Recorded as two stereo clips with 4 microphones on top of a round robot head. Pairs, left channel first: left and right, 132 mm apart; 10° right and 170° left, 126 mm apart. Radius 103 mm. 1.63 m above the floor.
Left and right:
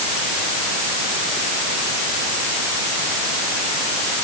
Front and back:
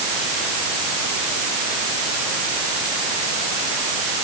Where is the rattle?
I don't hear a rattle.